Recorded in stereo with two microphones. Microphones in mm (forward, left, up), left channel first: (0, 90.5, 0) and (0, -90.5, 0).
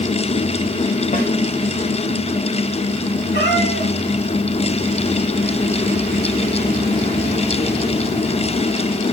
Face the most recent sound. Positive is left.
turn(degrees=60)  # may be behind; listen again after turning